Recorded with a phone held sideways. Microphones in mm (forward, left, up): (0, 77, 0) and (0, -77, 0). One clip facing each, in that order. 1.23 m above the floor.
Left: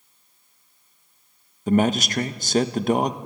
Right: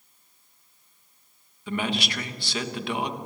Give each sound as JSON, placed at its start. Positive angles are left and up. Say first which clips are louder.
{"t": 1.7, "sound": "a man speaking", "louder": "left 9 dB", "side_deg": 45, "distance_m": 1.0}